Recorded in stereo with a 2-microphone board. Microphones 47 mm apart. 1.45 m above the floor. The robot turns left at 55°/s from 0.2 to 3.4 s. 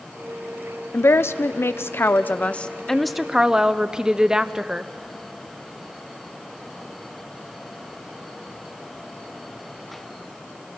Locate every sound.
0.9 s a woman speaking: 120° left, 0.7 m; by 4.9 s 15° right, 0.7 m